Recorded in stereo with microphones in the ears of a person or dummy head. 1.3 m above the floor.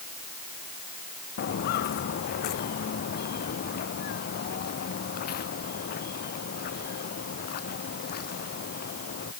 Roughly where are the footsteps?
Left.